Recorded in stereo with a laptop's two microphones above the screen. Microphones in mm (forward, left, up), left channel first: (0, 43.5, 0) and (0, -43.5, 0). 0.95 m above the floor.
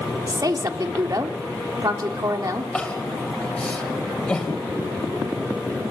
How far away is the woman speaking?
About 3 m.